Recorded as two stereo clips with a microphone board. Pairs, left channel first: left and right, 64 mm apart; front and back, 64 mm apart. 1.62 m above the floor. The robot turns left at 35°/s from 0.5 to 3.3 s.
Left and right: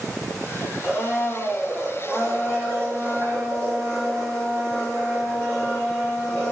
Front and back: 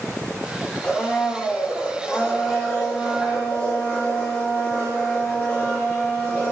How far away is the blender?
About 2.0 m.